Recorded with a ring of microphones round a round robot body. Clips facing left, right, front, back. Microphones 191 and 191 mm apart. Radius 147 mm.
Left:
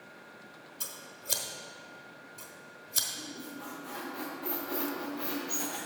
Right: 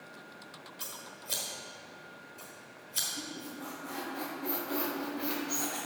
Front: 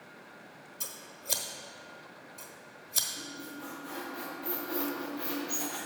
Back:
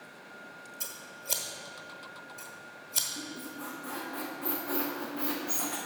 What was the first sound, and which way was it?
Scissors, 85° left.